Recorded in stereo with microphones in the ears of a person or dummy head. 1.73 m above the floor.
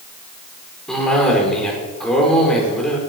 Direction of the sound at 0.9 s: 5° left (ahead or behind).